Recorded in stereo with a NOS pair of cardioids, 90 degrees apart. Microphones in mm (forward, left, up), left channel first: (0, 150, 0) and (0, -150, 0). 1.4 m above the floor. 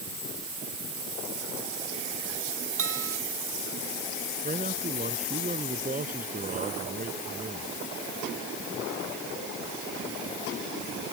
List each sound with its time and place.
2.8 s a bell: 45° right
4.4 s a man speaking: 25° right